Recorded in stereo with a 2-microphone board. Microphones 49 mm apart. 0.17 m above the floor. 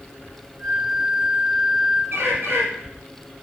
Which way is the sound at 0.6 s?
20° left (ahead or behind).